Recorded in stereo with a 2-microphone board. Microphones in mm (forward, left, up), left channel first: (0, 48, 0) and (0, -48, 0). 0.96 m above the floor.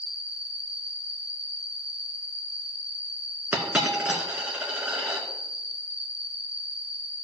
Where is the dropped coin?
15° right (ahead or behind), 2 m.